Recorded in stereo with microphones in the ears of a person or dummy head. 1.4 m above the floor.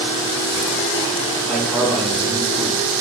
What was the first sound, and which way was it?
A man speaking, centre (ahead or behind).